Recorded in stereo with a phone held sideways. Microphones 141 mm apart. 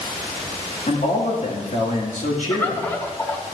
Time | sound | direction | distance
0.9 | a man speaking | 65° left (ahead or behind) | 1.8 m
2.5 | a bird | 15° left (ahead or behind) | 1.0 m